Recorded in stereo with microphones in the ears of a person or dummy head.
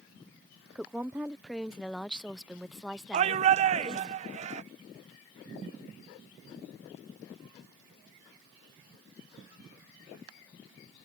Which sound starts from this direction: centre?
A woman speaking, at 0.8 s.